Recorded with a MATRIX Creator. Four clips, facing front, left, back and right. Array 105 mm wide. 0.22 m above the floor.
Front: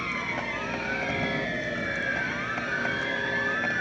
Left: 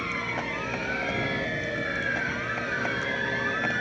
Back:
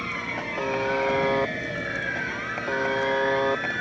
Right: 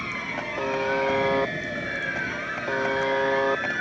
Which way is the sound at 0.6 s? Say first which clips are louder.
Right 7 dB, back 7 dB; 135° right.